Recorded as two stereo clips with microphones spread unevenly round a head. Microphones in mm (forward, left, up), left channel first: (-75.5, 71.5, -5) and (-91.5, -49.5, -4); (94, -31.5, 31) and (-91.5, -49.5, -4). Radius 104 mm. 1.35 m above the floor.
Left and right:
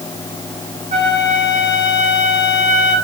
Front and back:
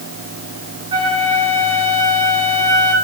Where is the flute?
110° right, 6 m.